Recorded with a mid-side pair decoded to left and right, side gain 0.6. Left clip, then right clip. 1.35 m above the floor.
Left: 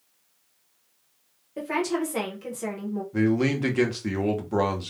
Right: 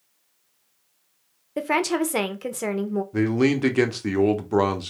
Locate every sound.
1.6 s a woman speaking: 45° right, 0.8 m
3.1 s a man speaking: 25° right, 1.0 m